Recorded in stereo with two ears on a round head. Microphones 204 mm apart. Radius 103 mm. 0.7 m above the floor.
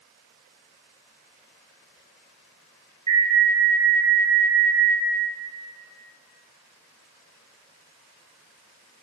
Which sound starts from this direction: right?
An alarm, at 3.1 s.